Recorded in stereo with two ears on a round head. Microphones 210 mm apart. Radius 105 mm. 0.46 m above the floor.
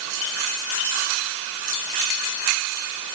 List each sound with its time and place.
Only background noise.